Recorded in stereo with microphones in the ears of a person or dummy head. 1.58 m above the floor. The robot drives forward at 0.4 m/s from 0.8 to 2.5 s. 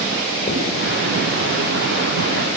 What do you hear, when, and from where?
0.5 s writing: 25° left (ahead or behind), 8 m